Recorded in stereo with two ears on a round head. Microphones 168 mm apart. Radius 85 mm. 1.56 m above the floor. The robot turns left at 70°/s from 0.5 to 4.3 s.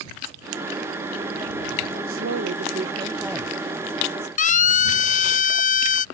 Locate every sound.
2.1 s a woman speaking: 90° right; by 4.3 s 115° left
4.4 s a siren: 45° left (ahead or behind)